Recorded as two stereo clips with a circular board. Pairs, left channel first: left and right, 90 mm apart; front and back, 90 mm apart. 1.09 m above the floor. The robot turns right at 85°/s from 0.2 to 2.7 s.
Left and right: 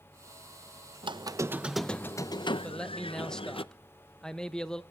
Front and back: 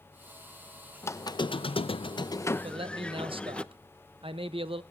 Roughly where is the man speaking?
Behind.